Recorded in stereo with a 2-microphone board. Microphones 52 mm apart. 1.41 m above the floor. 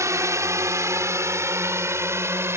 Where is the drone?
75° right (ahead or behind); by 2.6 s 55° right (ahead or behind).